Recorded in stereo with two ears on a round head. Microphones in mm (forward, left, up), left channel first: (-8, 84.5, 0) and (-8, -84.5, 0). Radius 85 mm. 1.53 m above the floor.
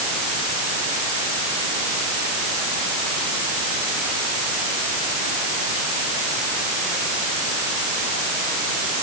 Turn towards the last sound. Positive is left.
No sound to turn to.